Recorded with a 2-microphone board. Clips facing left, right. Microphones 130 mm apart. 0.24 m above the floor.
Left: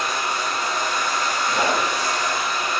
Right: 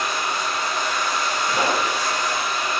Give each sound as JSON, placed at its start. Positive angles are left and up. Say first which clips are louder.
{"t": 0.0, "sound": "running water", "louder": "even", "side_deg": 50, "distance_m": 1.3}
{"t": 1.5, "sound": "a pop", "louder": "even", "side_deg": -15, "distance_m": 1.6}